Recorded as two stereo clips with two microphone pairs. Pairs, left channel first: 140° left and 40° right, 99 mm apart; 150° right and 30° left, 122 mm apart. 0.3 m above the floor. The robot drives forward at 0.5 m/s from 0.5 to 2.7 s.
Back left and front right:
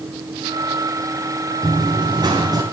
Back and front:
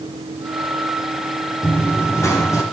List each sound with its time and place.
1.6 s running footsteps: 80° right, 4.5 m; by 2.6 s 90° right, 4.5 m